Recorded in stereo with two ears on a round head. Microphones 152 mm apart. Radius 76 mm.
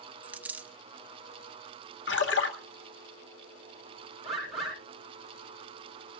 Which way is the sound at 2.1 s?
80° left.